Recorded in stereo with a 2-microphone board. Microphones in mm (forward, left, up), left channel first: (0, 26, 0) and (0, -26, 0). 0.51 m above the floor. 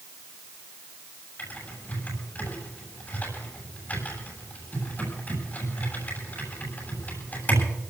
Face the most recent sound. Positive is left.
turn(degrees=35)  # may be behind; listen again after turning